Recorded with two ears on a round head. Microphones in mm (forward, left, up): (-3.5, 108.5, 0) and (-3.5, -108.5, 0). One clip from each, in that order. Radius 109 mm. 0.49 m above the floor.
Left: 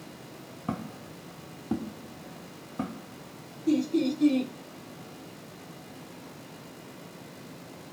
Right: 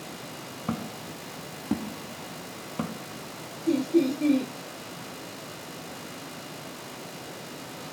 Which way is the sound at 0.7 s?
15° right (ahead or behind).